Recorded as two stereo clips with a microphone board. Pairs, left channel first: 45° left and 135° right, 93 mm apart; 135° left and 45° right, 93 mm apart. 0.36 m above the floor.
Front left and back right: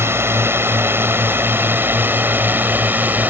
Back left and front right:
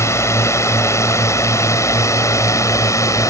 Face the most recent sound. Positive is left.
turn(degrees=165)